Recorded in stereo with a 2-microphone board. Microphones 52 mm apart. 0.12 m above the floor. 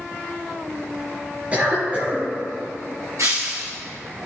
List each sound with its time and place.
1.5 s a cough: 25° right (ahead or behind), 2.5 m
3.2 s breaking glass: 75° right (ahead or behind), 1.5 m